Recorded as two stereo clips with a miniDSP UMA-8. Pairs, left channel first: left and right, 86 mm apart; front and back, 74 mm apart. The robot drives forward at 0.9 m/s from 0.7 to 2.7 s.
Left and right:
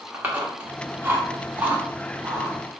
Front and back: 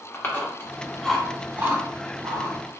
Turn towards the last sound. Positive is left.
turn(degrees=-170)